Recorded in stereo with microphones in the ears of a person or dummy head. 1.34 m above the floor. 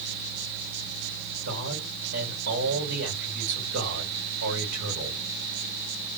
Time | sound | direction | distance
1.4 | a man speaking | 75° right (ahead or behind) | 2.5 m